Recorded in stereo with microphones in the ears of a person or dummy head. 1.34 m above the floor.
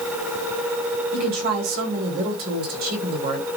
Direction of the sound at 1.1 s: 55° right (ahead or behind).